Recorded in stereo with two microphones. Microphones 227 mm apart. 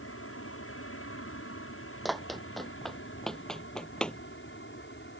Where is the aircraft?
70° left (ahead or behind); by 5.2 s 55° left (ahead or behind).